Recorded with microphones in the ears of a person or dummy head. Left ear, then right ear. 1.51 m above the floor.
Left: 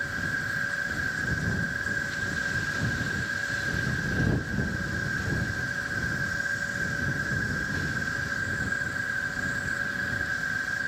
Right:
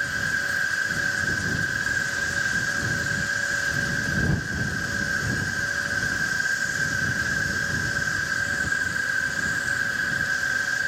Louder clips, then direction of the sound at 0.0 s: Right 5 dB; 20° right (ahead or behind).